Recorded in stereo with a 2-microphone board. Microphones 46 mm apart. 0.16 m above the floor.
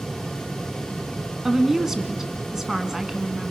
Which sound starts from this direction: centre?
A woman speaking, at 1.4 s.